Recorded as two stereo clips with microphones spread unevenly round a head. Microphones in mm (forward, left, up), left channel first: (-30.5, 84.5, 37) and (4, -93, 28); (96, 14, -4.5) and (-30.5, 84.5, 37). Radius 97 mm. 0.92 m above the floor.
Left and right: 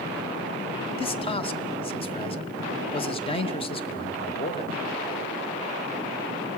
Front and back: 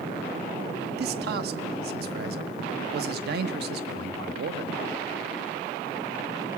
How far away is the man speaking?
About 1.3 m.